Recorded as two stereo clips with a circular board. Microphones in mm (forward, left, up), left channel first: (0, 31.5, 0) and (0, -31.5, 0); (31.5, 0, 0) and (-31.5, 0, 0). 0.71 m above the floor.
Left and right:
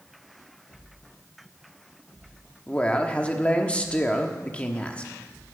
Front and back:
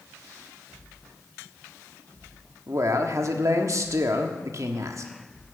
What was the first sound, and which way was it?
A man speaking, 155° left.